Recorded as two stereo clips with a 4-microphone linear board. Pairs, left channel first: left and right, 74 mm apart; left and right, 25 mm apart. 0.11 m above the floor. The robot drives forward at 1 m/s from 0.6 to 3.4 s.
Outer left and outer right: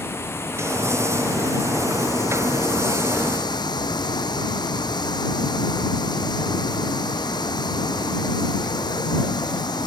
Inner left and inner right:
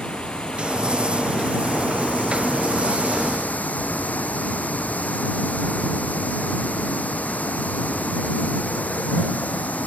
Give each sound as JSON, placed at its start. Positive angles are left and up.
{"t": 0.0, "sound": "running water", "side_deg": 35}